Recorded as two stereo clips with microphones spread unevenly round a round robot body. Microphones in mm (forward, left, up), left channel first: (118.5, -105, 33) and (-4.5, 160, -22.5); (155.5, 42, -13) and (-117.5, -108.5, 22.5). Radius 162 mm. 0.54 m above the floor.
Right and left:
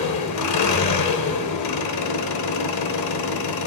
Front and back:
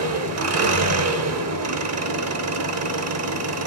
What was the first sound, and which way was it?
An engine running, 110° right.